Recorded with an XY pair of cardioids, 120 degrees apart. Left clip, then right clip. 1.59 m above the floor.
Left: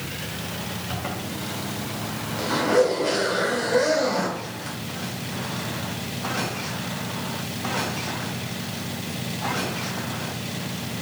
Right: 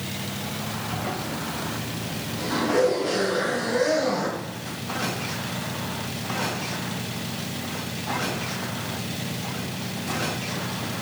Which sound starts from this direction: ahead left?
A zipper, at 0.9 s.